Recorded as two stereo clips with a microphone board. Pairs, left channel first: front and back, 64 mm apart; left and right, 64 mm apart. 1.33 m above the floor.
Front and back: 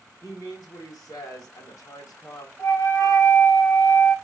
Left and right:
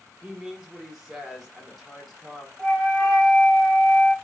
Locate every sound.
0.2 s a woman speaking: 10° right, 1.2 m
2.6 s a flute: 10° left, 1.6 m